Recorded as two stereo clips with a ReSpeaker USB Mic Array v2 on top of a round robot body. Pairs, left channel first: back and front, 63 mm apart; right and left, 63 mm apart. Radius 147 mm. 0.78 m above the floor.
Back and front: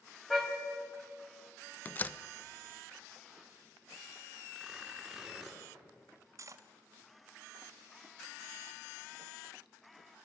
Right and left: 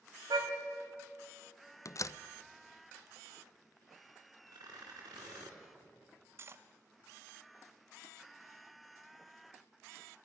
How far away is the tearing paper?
About 4.5 m.